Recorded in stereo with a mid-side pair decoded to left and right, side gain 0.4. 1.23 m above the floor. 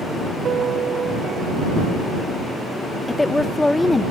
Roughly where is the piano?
Ahead right.